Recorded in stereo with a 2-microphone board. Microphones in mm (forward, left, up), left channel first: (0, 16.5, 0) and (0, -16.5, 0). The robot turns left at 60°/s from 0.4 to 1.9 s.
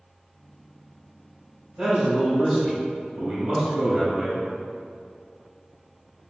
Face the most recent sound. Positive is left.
turn(degrees=-15)  # may be behind; listen again after turning